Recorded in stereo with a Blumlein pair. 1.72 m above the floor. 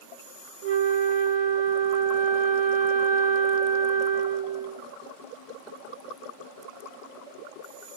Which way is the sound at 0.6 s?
55° right.